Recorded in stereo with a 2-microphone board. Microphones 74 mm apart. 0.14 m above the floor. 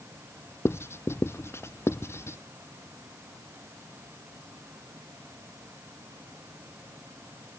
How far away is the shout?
No shout in this recording.